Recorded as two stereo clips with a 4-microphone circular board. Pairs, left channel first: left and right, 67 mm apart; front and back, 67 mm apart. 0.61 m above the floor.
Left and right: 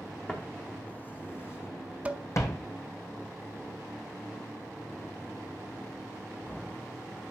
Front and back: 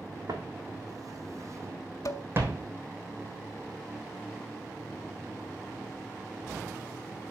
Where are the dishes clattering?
25° right, 1.0 m.